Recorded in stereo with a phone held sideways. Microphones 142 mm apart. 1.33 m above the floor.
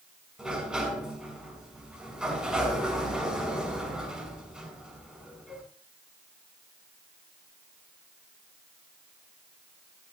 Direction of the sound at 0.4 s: 5° right (ahead or behind).